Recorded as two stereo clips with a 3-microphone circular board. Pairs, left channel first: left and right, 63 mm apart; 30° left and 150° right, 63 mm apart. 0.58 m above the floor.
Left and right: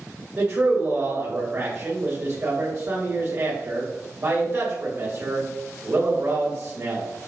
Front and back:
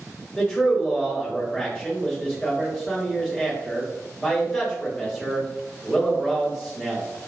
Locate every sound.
0.4 s a man speaking: 40° right, 2 m